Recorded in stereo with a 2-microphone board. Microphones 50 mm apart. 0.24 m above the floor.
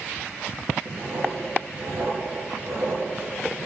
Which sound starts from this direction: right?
Writing, at 0.8 s.